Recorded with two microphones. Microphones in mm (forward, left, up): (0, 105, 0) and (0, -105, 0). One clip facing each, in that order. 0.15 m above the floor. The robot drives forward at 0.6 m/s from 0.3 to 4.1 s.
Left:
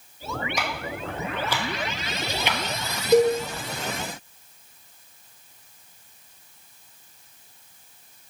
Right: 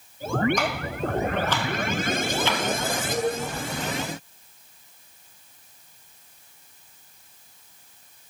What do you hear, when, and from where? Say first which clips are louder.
0.6 s ticking: right 4 dB; 10° left (ahead or behind), 1.9 m; by 2.6 s 20° left (ahead or behind), 0.8 m
3.1 s a cowbell: left 11 dB; 70° left (ahead or behind), 2.0 m; by 3.4 s 65° left (ahead or behind), 2 m